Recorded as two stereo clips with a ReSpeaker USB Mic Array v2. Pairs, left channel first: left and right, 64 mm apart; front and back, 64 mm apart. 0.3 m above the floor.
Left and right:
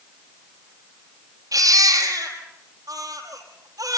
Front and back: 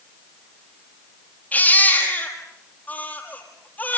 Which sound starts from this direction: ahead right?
A baby crying, at 1.5 s.